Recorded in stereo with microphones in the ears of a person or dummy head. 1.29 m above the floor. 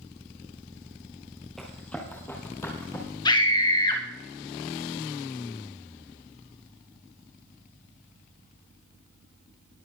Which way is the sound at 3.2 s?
25° left (ahead or behind).